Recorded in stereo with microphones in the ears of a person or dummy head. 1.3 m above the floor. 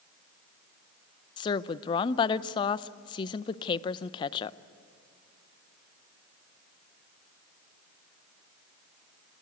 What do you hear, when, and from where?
1.4 s a woman speaking: 30° left (ahead or behind), 0.6 m